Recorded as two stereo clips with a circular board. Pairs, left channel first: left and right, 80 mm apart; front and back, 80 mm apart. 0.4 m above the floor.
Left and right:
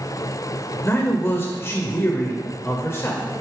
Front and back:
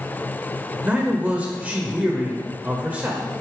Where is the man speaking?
120° left, 1.5 m.